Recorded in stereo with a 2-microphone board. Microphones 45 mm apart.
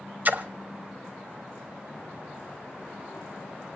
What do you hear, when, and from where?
0.2 s a splash: 40° right (ahead or behind), 1.0 m